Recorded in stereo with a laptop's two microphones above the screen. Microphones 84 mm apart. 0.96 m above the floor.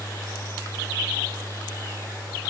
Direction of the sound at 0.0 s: 35° left (ahead or behind).